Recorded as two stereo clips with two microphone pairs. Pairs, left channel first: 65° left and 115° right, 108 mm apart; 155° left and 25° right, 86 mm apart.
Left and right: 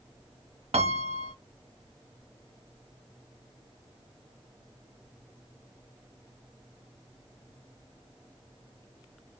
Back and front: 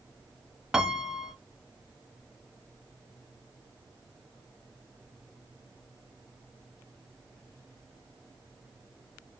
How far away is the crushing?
No crushing in this recording.